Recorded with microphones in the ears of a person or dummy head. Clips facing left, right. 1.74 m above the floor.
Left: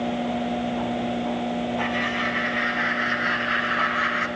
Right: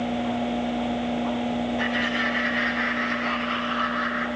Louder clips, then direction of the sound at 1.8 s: Even; 10° right (ahead or behind).